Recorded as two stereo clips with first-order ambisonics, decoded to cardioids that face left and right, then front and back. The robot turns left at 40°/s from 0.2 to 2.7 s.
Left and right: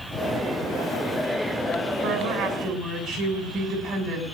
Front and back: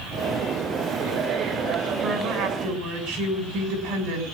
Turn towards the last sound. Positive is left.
turn(degrees=-155)